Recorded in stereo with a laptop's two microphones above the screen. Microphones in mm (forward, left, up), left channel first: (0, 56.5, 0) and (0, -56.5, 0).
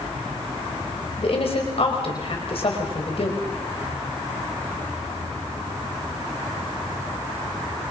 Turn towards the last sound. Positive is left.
turn(degrees=55)  # may be behind; listen again after turning